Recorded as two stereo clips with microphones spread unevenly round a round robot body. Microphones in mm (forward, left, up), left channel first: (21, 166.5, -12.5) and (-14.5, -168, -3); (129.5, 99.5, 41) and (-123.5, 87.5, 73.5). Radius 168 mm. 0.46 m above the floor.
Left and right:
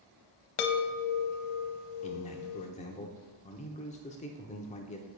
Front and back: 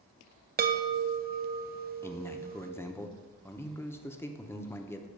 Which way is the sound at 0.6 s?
125° left.